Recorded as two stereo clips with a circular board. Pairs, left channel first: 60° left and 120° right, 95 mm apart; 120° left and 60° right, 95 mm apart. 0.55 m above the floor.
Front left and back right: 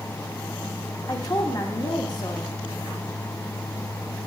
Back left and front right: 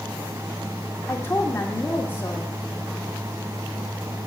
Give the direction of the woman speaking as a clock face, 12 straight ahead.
10 o'clock.